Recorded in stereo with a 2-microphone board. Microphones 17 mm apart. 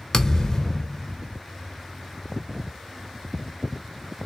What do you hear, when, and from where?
0.1 s a thud: 35° left (ahead or behind), 0.8 m